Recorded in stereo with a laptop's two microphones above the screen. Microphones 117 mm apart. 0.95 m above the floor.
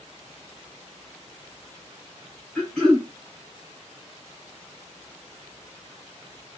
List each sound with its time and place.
2.5 s throat clearing: centre (ahead or behind), 4.5 m